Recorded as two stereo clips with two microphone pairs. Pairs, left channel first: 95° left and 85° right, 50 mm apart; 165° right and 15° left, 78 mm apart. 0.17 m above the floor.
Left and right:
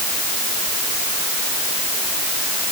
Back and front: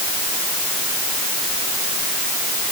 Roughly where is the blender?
No blender in this recording.